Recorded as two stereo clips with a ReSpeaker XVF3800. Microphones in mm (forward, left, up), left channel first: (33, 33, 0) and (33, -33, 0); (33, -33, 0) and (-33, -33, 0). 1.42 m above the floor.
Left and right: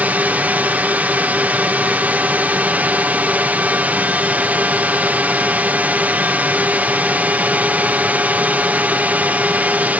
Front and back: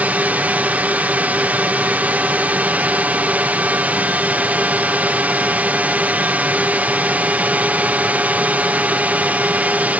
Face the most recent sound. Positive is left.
turn(degrees=-135)